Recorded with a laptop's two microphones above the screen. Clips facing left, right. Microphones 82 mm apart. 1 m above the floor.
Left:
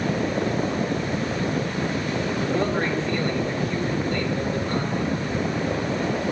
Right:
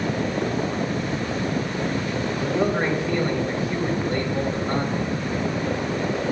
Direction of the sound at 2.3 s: 5° right (ahead or behind).